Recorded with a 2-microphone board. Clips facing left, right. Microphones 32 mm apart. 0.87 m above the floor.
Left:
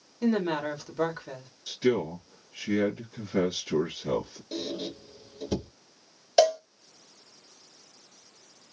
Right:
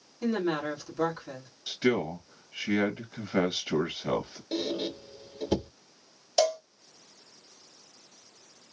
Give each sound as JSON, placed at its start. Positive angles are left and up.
{"t": 0.2, "sound": "a woman speaking", "side_deg": 20, "distance_m": 1.7}
{"t": 1.7, "sound": "a man speaking", "side_deg": -25, "distance_m": 1.0}
{"t": 4.5, "sound": "a squeak", "side_deg": -25, "distance_m": 0.6}
{"t": 6.4, "sound": "a cowbell", "side_deg": 30, "distance_m": 1.4}